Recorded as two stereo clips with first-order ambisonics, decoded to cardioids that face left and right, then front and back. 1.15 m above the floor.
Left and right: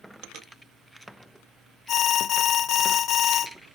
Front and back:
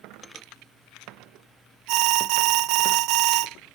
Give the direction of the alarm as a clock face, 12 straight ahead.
7 o'clock.